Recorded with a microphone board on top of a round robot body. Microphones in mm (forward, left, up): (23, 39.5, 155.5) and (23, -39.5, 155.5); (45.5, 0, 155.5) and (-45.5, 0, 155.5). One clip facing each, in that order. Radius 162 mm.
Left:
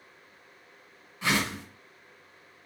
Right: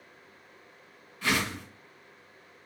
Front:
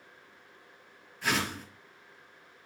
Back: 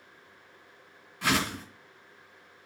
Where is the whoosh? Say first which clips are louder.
Left 1 dB, back 3 dB; 160° left, 1.8 m.